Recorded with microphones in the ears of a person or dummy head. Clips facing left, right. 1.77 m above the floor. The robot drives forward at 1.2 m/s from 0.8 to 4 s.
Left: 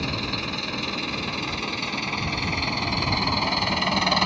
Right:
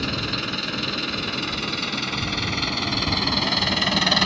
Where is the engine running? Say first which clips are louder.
Right 1 dB; 15° right (ahead or behind); by 4.3 s 20° right (ahead or behind).